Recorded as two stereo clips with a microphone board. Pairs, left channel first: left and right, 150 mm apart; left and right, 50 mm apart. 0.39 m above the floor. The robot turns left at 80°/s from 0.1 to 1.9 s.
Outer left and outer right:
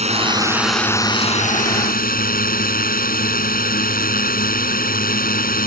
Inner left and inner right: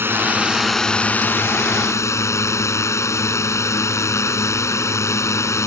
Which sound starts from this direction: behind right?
A drone, at 0.0 s.